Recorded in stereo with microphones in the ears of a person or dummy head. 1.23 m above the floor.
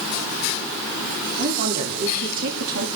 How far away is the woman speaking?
About 3.5 m.